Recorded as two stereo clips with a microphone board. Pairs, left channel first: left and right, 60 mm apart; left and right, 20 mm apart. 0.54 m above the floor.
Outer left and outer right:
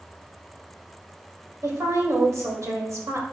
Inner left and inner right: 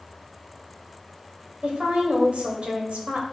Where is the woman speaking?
65° right (ahead or behind), 2 m.